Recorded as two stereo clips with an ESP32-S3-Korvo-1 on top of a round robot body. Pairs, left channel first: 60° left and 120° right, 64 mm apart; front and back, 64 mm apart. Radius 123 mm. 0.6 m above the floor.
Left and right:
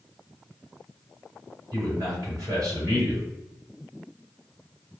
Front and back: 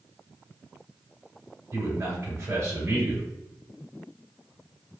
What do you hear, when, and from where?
1.7 s a man speaking: 135° right, 2.0 m